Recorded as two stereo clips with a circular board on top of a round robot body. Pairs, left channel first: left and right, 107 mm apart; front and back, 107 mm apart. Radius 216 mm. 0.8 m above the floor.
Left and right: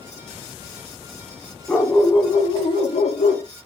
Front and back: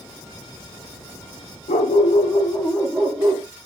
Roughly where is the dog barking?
Ahead.